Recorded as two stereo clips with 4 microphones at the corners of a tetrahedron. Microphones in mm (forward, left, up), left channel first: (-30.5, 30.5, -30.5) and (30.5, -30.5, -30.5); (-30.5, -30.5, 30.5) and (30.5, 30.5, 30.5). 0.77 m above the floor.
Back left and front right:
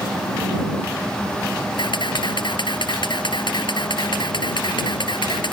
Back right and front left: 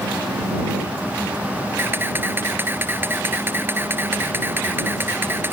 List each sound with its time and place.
1.8 s a camera shutter: 110° left